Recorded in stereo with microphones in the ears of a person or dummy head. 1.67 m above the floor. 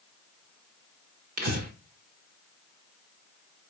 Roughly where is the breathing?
Right.